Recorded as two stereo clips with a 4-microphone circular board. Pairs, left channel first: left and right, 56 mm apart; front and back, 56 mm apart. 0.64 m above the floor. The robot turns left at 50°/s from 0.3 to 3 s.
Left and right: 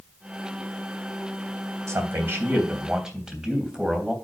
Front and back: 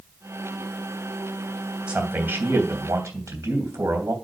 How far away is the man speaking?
About 3 m.